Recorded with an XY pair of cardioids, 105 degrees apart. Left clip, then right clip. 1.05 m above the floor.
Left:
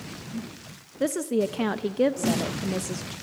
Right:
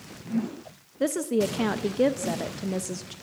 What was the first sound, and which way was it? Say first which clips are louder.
A woman speaking: even; straight ahead.